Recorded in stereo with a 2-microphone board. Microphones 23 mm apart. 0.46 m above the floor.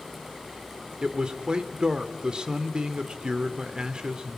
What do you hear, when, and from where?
1.0 s a man speaking: 40° right (ahead or behind), 1.4 m